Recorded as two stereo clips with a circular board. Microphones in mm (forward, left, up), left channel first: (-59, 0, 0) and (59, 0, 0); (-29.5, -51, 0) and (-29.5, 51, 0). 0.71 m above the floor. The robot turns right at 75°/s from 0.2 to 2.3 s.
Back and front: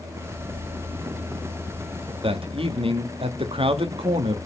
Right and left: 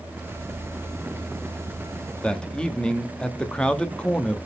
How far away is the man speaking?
About 1.0 m.